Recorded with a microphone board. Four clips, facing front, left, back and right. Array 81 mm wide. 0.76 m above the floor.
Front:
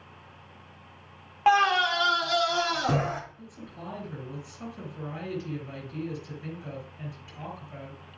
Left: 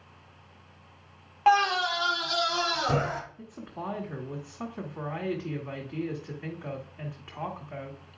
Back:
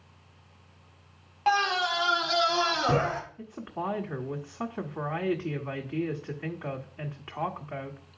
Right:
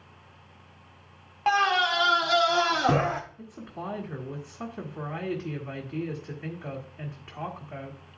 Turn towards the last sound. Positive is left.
turn(degrees=180)